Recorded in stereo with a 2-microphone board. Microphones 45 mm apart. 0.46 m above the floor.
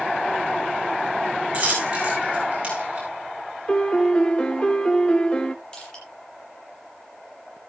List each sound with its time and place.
1.5 s a dropped coin: 25° right (ahead or behind), 5 m
3.7 s a piano: 20° left (ahead or behind), 0.7 m
5.7 s crushing: 20° left (ahead or behind), 8.5 m